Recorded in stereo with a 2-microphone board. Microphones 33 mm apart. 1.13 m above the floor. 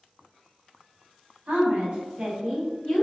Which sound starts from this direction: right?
A woman speaking, at 1.5 s.